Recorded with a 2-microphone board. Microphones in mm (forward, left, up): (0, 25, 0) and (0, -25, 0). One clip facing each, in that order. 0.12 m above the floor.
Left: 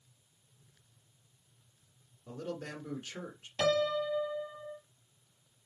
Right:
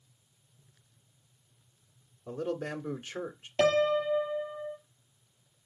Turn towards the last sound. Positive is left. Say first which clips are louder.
# right 4 dB
turn(degrees=-35)  # may be behind; listen again after turning